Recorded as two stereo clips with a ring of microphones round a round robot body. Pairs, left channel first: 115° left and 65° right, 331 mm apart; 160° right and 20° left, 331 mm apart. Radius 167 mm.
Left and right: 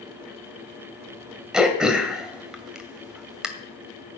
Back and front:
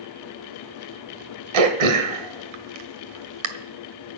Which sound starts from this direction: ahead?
Throat clearing, at 1.5 s.